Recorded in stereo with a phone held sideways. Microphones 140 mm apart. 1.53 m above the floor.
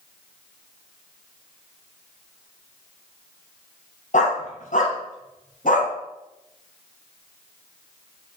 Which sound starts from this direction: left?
A dog barking, at 4.1 s.